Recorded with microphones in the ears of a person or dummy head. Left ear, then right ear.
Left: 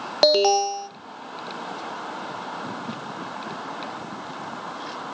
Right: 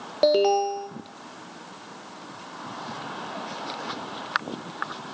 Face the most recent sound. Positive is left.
turn(degrees=35)  # may be behind; listen again after turning